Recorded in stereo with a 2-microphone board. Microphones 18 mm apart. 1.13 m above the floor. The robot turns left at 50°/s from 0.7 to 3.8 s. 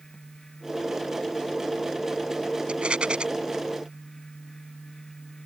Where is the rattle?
80° right; by 3.2 s 70° right (ahead or behind).